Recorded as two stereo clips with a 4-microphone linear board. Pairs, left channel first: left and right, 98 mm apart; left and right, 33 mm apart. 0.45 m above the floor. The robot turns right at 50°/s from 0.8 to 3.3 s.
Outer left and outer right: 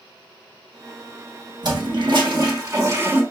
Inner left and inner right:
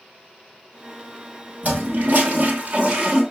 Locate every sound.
1.6 s a toilet flushing: 105° right, 1.2 m; by 3.2 s 25° right, 1.2 m